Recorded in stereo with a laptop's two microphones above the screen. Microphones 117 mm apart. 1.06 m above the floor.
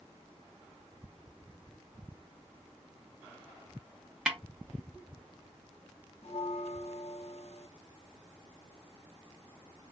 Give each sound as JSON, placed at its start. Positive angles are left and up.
{"t": 4.3, "sound": "a snare drum", "side_deg": -5, "distance_m": 0.8}
{"t": 6.2, "sound": "a bell", "side_deg": 65, "distance_m": 0.7}